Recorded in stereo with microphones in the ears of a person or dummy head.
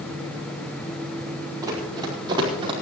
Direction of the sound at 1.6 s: 15° right (ahead or behind).